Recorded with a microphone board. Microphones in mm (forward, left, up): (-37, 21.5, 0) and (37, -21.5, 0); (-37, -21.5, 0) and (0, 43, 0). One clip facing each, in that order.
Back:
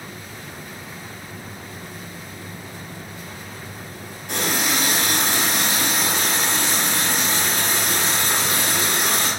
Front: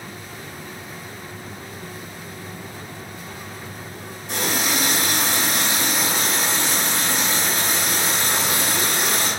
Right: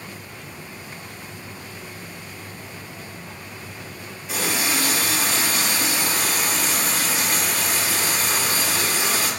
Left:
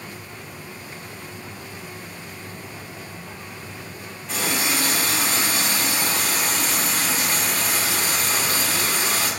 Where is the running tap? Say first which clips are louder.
Even, even; 155° left, 1.1 m.